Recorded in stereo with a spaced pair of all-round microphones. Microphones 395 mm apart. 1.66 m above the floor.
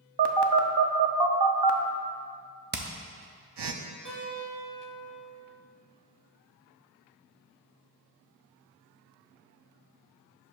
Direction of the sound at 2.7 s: 25° right (ahead or behind).